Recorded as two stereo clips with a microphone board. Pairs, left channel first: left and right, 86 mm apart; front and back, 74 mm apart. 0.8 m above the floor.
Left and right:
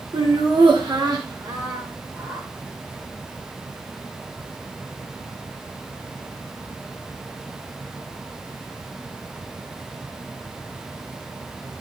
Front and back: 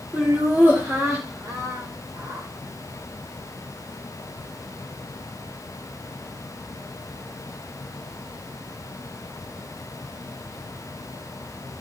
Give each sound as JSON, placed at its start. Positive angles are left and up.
{"t": 0.1, "sound": "laughter", "azimuth_deg": -110, "distance_m": 2.5}